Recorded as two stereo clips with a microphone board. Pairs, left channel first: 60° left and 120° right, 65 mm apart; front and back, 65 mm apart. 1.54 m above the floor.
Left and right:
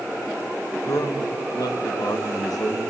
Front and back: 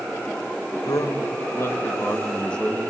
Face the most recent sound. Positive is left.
turn(degrees=85)